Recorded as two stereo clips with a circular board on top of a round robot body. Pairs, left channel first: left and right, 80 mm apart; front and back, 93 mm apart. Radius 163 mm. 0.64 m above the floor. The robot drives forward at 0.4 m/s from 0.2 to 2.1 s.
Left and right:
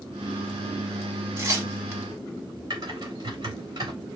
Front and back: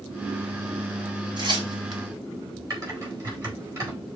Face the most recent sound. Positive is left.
turn(degrees=-130)